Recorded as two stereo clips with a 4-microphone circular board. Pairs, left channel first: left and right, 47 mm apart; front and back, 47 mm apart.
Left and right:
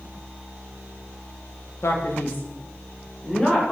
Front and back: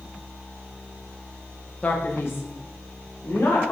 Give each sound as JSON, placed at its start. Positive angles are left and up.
{"t": 1.8, "sound": "a man speaking", "azimuth_deg": 60, "distance_m": 0.8}